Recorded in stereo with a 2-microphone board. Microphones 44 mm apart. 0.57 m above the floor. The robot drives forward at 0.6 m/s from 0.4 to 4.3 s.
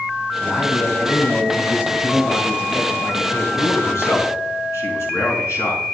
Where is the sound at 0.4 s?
55° left (ahead or behind), 4 m; by 3.2 s 70° left (ahead or behind), 3 m.